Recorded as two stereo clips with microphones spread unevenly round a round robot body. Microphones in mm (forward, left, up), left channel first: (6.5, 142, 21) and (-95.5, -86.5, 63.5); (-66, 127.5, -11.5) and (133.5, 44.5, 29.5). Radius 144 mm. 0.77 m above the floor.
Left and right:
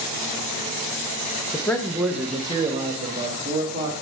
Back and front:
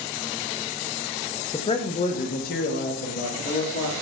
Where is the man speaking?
120° left, 0.7 m; by 3.9 s 175° right, 1.4 m.